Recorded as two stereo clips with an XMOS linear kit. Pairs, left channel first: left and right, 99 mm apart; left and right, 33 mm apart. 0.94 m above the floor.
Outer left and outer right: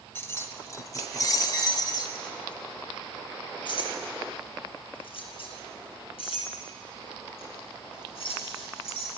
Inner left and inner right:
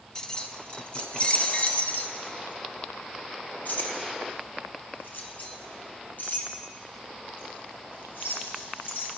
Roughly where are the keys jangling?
Left.